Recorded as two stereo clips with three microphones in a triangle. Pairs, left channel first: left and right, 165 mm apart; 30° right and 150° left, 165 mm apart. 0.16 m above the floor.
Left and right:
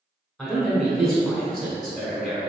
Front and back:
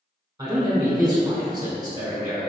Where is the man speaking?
175° left, 1.2 m.